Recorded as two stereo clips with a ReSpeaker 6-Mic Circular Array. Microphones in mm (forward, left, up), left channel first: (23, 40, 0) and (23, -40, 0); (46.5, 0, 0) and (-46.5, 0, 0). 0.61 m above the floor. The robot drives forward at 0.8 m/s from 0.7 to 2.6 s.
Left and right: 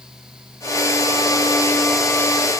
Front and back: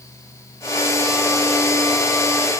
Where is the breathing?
No breathing in this recording.